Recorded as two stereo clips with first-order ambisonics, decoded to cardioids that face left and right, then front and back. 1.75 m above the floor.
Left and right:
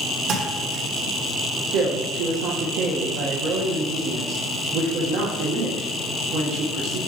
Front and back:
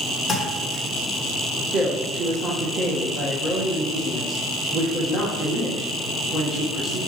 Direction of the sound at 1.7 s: 115° right.